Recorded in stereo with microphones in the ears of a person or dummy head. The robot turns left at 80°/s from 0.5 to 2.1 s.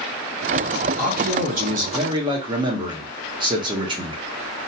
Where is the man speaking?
60° right, 0.8 m; by 4.2 s 150° right, 0.8 m.